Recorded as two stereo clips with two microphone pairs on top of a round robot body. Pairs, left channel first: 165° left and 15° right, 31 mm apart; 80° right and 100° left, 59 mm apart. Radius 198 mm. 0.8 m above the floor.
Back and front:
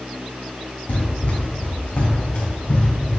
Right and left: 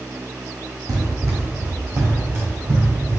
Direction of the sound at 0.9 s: 130° left.